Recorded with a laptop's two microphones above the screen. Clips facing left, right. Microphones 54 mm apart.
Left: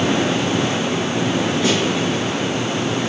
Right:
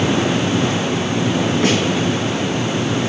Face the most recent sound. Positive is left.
turn(degrees=-50)  # may be behind; listen again after turning